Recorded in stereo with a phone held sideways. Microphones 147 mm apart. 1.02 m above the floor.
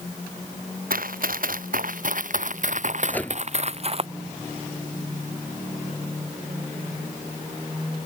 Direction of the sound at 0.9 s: 75° right (ahead or behind).